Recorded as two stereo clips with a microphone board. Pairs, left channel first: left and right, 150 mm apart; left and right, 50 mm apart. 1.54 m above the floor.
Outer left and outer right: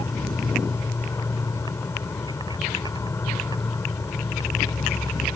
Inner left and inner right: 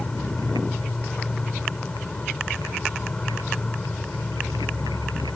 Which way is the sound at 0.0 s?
20° left (ahead or behind).